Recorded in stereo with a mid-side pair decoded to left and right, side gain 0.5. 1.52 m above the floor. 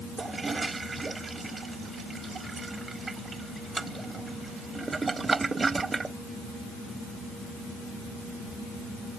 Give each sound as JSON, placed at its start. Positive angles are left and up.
{"t": 0.2, "sound": "a toilet flushing", "azimuth_deg": -25}